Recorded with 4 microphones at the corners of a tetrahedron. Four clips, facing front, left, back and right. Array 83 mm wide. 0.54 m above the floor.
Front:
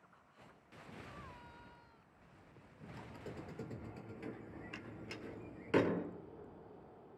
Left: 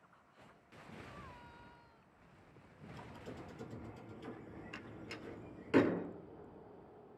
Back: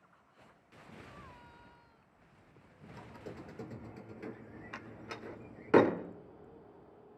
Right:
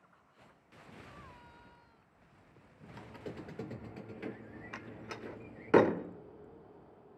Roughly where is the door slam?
Behind right.